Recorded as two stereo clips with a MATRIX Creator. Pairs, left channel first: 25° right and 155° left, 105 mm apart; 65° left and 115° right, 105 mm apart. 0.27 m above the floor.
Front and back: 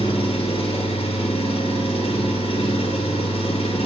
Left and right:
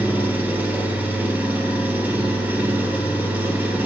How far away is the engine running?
About 1.0 m.